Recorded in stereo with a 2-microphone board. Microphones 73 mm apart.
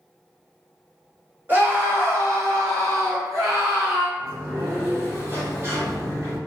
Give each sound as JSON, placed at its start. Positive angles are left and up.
{"t": 1.5, "sound": "a scream", "side_deg": -25, "distance_m": 1.4}
{"t": 4.2, "sound": "a sliding door", "side_deg": -30, "distance_m": 1.7}